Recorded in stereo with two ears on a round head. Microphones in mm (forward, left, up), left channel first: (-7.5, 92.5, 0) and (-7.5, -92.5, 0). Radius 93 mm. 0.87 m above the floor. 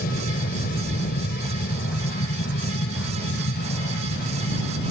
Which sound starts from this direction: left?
An aircraft, at 0.0 s.